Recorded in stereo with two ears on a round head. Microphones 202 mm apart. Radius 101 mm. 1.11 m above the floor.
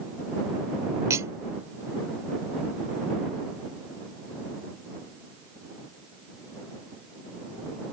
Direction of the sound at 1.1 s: 15° right (ahead or behind).